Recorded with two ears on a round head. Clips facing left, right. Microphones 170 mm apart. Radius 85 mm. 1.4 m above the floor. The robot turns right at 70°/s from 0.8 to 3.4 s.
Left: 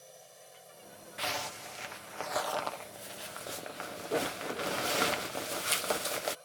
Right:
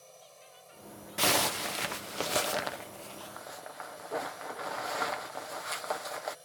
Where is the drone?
10° left; by 6.5 s 170° right.